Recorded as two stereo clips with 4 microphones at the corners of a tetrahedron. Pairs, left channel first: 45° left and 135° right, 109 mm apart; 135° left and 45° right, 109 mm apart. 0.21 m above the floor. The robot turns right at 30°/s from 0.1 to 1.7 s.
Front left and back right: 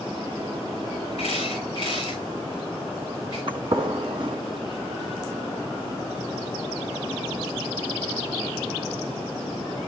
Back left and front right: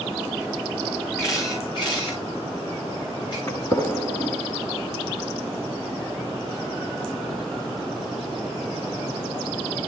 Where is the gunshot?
175° right, 1.6 m.